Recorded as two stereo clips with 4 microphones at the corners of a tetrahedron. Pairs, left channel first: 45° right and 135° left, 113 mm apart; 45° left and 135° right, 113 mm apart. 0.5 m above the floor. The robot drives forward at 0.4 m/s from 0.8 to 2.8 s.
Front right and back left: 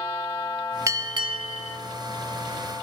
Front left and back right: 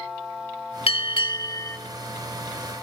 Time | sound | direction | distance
0.9 | a bell | 75° left | 0.6 m